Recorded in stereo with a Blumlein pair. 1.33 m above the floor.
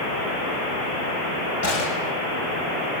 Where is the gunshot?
55° left, 8 m.